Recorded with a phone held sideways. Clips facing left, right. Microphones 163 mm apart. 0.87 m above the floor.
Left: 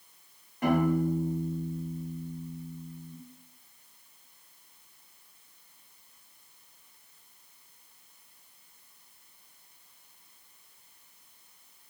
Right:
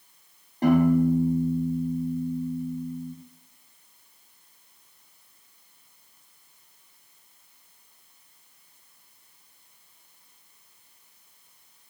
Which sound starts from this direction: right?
A piano, at 0.6 s.